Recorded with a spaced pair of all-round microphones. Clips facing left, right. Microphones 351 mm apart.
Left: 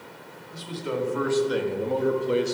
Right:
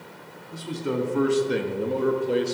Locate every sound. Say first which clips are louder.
0.5 s a man speaking: right 3 dB; 65° right (ahead or behind), 2 m; by 2.5 s 20° left (ahead or behind), 1.4 m